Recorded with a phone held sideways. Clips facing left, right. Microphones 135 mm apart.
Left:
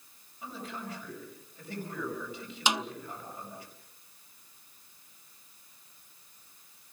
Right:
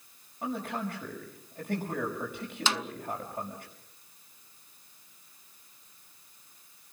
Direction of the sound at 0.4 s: 60° right (ahead or behind).